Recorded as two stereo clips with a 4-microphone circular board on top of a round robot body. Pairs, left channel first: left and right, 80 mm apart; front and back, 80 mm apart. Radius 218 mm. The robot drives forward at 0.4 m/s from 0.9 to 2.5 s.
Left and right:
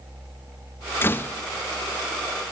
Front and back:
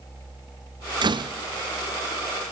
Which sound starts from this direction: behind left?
A door slam, at 1.0 s.